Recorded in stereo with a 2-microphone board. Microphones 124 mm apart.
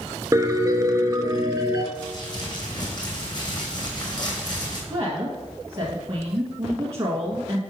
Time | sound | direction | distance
0.3 | a piano | 25° right (ahead or behind) | 0.7 m
1.9 | crumpling | 35° left (ahead or behind) | 2 m
4.9 | a woman speaking | 25° right (ahead or behind) | 1.4 m